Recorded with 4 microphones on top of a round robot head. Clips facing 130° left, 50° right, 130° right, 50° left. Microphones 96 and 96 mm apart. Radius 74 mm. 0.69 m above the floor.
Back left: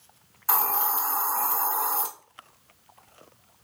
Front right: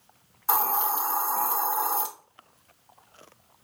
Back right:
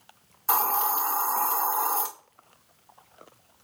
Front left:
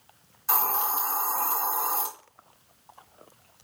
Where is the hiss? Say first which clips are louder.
Front right 1 dB, back right 3 dB; 110° right, 1.3 m.